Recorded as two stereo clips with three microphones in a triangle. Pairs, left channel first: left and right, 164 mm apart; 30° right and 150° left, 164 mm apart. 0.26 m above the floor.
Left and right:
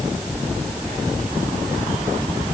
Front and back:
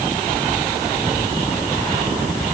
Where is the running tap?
No running tap in this recording.